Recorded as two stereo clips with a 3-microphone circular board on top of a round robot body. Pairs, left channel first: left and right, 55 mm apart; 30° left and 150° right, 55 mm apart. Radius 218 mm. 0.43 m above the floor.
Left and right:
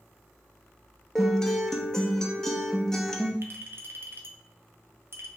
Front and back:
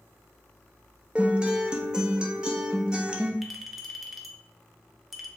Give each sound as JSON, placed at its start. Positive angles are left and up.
{"t": 1.1, "sound": "a guitar", "azimuth_deg": 160, "distance_m": 0.9}
{"t": 3.4, "sound": "a clink", "azimuth_deg": -60, "distance_m": 0.8}